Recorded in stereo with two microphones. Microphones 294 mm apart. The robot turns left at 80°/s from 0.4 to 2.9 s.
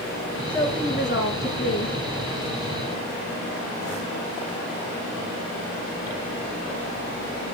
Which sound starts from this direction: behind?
A woman speaking, at 0.5 s.